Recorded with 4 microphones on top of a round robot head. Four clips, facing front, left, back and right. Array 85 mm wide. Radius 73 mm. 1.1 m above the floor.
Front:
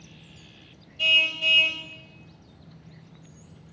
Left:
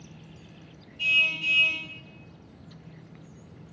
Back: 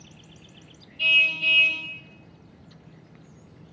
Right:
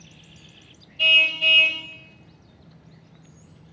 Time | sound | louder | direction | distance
1.0 | a car horn | right 6 dB, back 2 dB | 70° right | 3 m